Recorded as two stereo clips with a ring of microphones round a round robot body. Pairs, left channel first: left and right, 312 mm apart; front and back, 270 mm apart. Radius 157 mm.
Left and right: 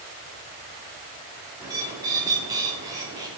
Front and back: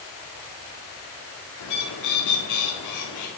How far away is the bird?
About 1.6 m.